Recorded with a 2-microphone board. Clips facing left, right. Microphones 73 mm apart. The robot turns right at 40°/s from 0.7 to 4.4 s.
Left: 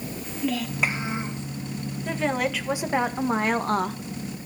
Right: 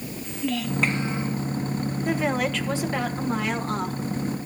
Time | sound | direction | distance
0.2 | a child speaking | straight ahead | 1.6 m
2.0 | a woman speaking | 15° right | 1.5 m